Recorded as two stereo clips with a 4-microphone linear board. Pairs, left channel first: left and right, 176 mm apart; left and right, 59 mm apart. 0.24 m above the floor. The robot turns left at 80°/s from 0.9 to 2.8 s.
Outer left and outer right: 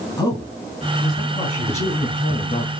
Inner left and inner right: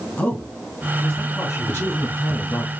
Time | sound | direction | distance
0.2 | a man speaking | 160° left | 2.5 m
1.7 | a man speaking | 135° left | 2.5 m